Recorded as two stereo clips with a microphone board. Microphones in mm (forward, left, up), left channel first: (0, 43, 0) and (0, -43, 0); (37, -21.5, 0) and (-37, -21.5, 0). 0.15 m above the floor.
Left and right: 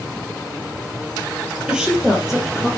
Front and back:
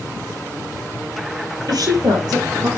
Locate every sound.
1.7 s a woman speaking: 170° right, 3.5 m; by 2.7 s 175° right, 4 m